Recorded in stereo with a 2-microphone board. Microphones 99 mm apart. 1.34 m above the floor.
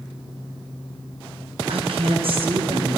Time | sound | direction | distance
1.7 | a woman speaking | 65° right (ahead or behind) | 0.8 m